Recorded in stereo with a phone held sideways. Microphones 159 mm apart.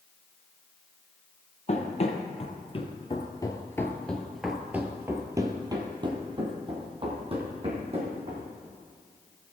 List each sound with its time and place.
1.7 s running footsteps: 45° left (ahead or behind), 1.6 m; by 8.5 s 40° right (ahead or behind), 3 m